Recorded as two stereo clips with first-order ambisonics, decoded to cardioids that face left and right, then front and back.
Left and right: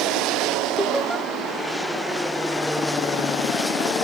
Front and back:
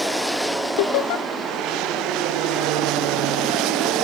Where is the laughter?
5° right, 0.6 m.